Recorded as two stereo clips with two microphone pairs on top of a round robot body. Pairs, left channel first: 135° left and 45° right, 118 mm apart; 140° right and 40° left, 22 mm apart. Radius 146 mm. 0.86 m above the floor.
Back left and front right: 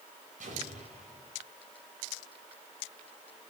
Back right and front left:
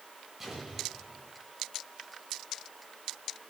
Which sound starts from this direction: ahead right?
An explosion, at 0.4 s.